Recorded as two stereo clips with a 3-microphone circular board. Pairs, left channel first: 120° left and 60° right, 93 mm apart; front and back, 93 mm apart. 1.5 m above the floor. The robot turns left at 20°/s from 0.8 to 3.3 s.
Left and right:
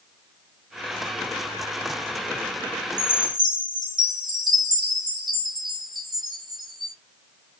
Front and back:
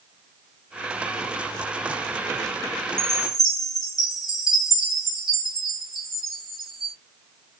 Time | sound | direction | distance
3.0 | a chime | 35° right | 1.7 m